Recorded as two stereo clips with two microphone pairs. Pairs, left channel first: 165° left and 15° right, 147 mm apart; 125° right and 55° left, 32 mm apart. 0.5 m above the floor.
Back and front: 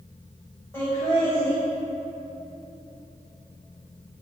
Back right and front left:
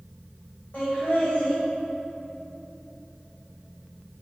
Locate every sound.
0.7 s laughter: 125° right, 1.8 m